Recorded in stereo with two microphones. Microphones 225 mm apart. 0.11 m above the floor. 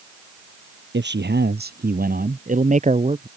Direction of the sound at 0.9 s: 50° right (ahead or behind).